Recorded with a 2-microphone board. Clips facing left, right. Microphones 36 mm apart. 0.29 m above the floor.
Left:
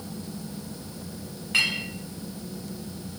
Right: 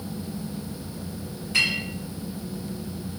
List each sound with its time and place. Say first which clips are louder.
1.5 s a clink: right 1 dB; 45° left (ahead or behind), 1.1 m